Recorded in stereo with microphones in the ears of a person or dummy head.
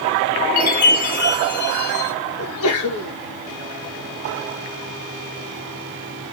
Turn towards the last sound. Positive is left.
turn(degrees=75)  # may be behind; listen again after turning